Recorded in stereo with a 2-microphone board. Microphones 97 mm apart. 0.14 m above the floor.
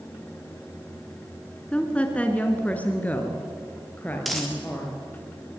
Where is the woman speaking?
10° left (ahead or behind), 1.9 m; by 5.0 s 20° left (ahead or behind), 3.5 m.